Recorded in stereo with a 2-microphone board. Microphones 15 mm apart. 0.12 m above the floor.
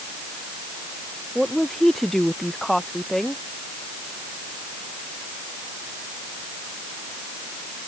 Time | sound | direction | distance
1.4 | a woman speaking | 10° left (ahead or behind) | ?